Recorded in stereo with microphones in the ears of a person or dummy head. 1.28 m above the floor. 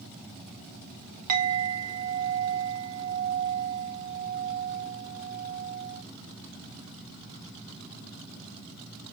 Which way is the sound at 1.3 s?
45° right (ahead or behind).